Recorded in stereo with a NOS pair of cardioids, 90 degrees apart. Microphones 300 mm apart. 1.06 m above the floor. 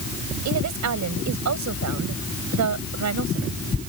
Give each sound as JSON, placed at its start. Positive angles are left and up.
{"t": 0.5, "sound": "a woman speaking", "azimuth_deg": -70}